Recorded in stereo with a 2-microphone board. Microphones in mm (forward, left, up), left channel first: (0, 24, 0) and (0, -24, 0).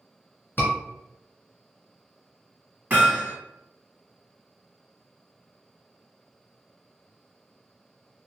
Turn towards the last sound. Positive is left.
turn(degrees=-40)  # may be behind; listen again after turning